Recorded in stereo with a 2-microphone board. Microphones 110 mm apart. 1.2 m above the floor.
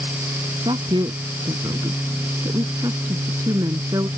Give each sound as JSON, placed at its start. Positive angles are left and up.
{"t": 0.7, "sound": "a woman speaking", "side_deg": -45}